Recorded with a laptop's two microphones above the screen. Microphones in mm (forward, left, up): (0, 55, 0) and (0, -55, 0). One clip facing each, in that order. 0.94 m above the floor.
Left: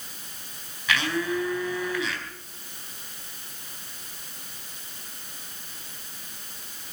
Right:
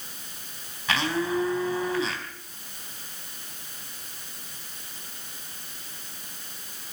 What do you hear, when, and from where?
0.9 s a blender: 30° right (ahead or behind), 3.5 m